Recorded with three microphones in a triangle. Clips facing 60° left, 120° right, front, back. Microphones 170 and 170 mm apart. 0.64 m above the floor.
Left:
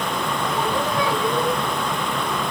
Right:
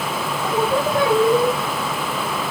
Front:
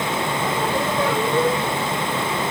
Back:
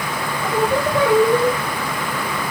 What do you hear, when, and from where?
0.4 s singing: 155° right, 8 m